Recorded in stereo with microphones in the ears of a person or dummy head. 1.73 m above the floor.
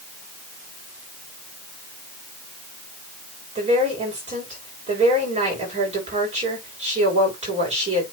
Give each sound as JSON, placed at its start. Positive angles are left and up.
{"t": 3.5, "sound": "a woman speaking", "side_deg": -40, "distance_m": 7.0}